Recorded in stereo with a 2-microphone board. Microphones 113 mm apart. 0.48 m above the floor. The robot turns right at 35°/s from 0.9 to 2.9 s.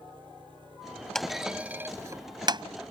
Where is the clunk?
5° left (ahead or behind); by 2.6 s 45° right (ahead or behind).